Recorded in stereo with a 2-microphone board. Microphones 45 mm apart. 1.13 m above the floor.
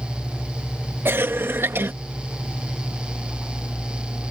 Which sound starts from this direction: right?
A cough, at 1.1 s.